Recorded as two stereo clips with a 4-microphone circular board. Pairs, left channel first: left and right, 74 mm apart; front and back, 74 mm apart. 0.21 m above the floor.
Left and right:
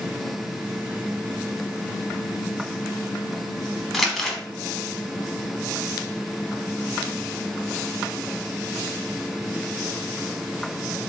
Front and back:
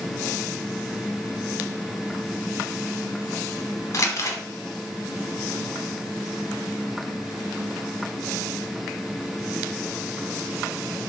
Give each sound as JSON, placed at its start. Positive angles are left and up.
{"t": 3.9, "sound": "crumpling", "azimuth_deg": 0, "distance_m": 0.6}